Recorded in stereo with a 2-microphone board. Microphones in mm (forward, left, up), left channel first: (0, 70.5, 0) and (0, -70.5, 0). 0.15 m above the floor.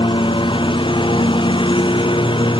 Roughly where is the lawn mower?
Left.